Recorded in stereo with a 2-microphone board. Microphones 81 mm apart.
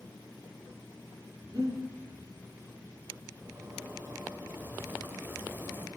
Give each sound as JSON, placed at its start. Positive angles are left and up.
{"t": 1.5, "sound": "breathing", "side_deg": -50, "distance_m": 9.0}
{"t": 3.4, "sound": "a zipper", "side_deg": -25, "distance_m": 3.5}